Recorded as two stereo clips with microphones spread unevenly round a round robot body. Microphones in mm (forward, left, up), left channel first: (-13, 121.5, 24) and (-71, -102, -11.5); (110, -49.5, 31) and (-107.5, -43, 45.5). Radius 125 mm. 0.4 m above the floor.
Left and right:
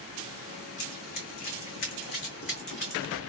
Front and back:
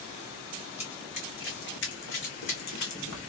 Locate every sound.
0.8 s running footsteps: 65° left, 1.5 m; by 3.2 s 15° left, 1.6 m